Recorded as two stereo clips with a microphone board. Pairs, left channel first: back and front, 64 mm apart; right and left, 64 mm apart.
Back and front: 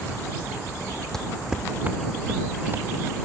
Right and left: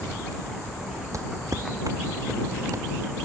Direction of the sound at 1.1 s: 100° left.